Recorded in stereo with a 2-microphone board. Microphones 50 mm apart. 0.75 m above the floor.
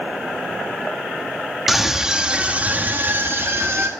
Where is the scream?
5° right (ahead or behind), 1.5 m; by 3.9 s 55° right (ahead or behind), 1.6 m.